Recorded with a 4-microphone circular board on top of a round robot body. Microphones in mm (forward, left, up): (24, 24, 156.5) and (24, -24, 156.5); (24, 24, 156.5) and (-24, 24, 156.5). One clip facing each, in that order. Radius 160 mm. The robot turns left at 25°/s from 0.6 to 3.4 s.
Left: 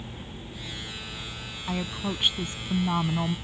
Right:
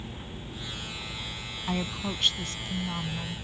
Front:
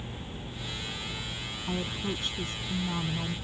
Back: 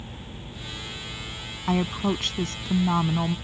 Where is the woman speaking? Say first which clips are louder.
Left 1 dB, back 9 dB; straight behind; by 3.4 s 140° left.